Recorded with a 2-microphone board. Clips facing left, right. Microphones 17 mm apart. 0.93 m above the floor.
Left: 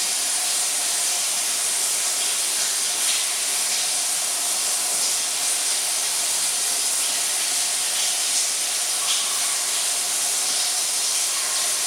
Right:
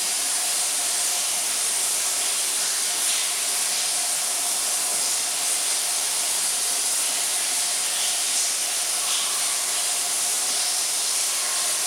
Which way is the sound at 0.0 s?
60° left (ahead or behind).